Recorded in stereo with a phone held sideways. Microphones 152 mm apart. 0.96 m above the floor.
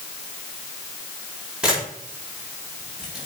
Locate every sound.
1.6 s a camera shutter: 5° right (ahead or behind), 4.5 m